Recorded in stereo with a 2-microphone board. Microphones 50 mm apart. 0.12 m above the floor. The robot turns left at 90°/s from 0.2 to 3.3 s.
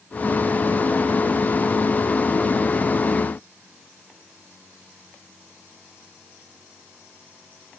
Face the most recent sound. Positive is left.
No sound to turn to.